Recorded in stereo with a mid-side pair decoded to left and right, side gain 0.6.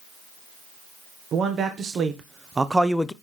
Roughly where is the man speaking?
Ahead right.